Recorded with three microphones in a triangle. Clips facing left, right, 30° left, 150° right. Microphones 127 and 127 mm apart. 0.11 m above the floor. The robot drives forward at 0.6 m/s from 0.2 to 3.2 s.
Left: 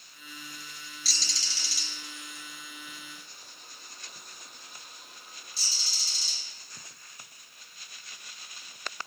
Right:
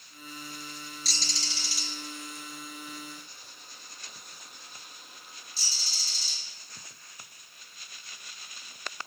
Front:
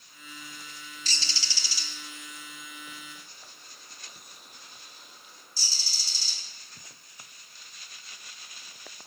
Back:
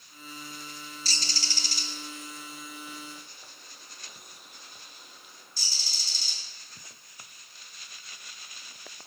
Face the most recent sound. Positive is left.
turn(degrees=180)